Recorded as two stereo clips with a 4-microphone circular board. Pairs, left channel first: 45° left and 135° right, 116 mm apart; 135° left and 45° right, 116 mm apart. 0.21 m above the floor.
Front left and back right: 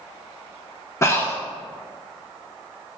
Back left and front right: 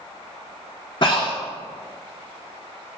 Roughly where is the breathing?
Left.